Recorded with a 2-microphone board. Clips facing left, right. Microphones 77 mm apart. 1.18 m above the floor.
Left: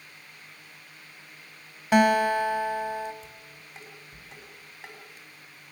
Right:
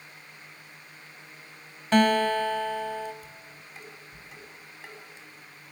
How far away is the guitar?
About 1.3 m.